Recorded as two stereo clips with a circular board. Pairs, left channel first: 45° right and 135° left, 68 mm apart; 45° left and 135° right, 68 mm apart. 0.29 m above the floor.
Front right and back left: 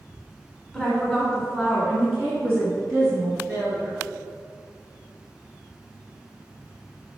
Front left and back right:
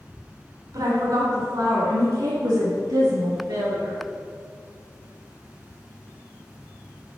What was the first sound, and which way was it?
A woman speaking, 135° right.